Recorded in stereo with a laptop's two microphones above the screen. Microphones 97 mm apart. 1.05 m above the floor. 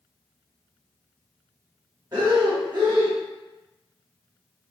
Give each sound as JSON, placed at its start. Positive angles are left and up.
{"t": 2.1, "sound": "breathing", "side_deg": -45, "distance_m": 1.3}